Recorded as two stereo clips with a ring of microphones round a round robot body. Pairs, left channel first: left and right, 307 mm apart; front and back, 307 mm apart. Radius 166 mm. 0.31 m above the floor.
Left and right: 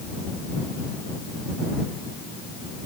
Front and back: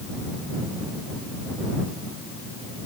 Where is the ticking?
No ticking in this recording.